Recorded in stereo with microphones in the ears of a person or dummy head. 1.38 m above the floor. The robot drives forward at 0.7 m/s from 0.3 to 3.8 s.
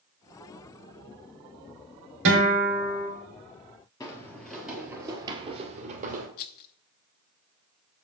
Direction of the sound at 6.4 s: 50° left (ahead or behind).